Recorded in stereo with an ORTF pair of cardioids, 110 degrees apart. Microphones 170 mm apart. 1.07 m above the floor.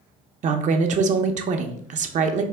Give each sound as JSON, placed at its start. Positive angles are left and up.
{"t": 0.4, "sound": "a woman speaking", "azimuth_deg": -45, "distance_m": 0.7}